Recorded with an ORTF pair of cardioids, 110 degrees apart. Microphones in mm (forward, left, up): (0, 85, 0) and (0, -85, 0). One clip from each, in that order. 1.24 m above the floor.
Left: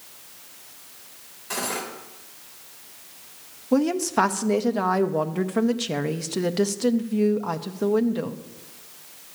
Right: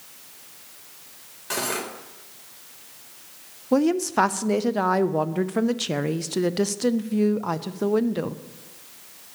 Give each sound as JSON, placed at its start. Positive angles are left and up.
{"t": 1.5, "sound": "cutlery clinking", "azimuth_deg": -40, "distance_m": 3.0}
{"t": 3.7, "sound": "a woman speaking", "azimuth_deg": -10, "distance_m": 0.6}